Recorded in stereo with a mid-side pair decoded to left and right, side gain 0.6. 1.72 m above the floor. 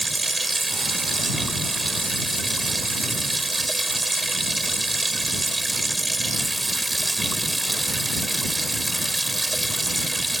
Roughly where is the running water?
Ahead.